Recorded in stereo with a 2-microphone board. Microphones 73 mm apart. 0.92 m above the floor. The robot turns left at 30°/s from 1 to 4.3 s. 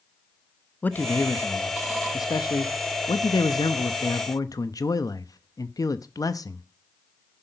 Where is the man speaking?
155° left, 0.8 m; by 6.6 s 55° left, 0.8 m.